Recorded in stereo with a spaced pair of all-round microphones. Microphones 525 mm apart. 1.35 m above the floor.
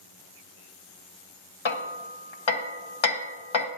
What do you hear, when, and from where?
1.6 s hammering: 60° left (ahead or behind), 0.9 m